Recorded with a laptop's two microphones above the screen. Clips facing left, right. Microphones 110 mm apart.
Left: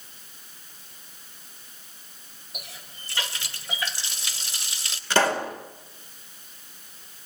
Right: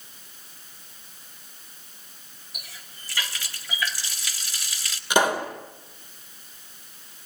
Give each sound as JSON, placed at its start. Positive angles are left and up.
{"t": 2.5, "sound": "a running tap", "side_deg": 25, "distance_m": 3.5}
{"t": 5.1, "sound": "a pop", "side_deg": -15, "distance_m": 4.5}